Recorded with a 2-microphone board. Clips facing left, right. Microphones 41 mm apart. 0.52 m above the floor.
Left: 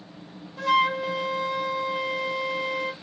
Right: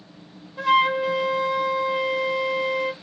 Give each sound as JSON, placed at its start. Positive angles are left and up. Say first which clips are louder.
{"t": 0.6, "sound": "a flute", "louder": "right 3 dB", "side_deg": -20, "distance_m": 0.7}